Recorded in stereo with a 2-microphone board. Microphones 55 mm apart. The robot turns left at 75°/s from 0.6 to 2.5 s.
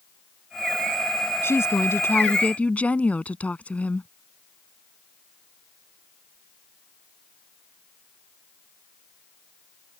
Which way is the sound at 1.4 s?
110° left.